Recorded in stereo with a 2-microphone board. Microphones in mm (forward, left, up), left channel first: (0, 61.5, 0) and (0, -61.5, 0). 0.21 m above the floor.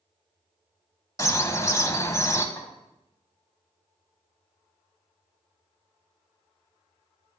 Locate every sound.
1.2 s a bird: 25° left (ahead or behind), 0.5 m
2.6 s a snare drum: 30° left (ahead or behind), 1.6 m